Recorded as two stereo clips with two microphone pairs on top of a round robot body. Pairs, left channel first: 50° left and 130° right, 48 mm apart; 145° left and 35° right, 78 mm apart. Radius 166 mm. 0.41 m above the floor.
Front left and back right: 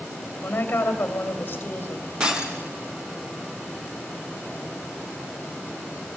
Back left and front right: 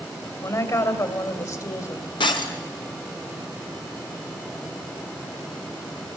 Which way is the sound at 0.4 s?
105° left.